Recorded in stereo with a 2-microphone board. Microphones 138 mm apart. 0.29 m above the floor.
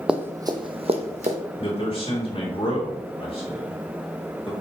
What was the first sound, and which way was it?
Running footsteps, 5° right (ahead or behind).